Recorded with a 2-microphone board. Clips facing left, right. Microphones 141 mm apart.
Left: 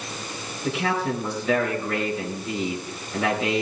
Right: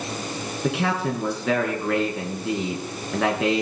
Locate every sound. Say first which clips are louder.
0.6 s a man speaking: right 1 dB; 75° right (ahead or behind), 4.5 m